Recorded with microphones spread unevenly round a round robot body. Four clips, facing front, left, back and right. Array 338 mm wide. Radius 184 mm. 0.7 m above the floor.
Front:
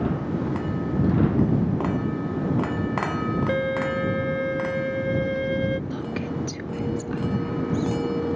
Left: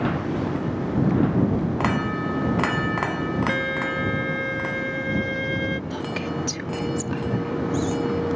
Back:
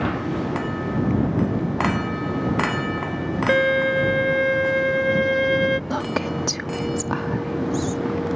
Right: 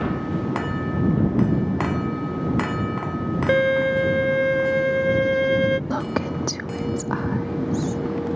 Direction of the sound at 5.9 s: 110° right.